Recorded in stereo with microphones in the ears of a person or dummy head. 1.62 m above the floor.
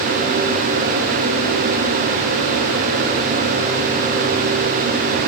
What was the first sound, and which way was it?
Only background noise.